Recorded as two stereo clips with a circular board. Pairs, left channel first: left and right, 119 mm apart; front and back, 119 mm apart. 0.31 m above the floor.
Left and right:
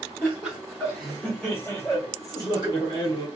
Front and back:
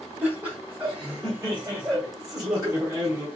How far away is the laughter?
About 1.5 m.